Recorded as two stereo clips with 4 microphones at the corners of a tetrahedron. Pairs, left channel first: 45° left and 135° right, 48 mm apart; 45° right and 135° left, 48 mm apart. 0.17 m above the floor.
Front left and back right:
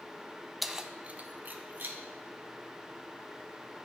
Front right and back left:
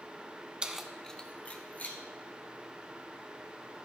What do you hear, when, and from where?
0.6 s keys jangling: 135° left, 0.7 m; by 2.0 s 95° right, 1.6 m